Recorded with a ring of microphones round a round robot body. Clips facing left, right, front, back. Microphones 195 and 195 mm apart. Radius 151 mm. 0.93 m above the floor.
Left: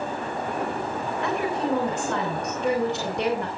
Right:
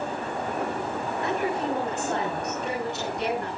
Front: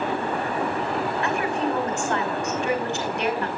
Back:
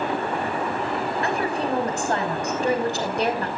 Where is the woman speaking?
130° left, 4.5 m.